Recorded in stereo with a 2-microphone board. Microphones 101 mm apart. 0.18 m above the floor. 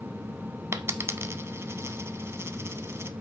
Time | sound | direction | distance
0.7 | a dropped coin | 30° right (ahead or behind) | 0.7 m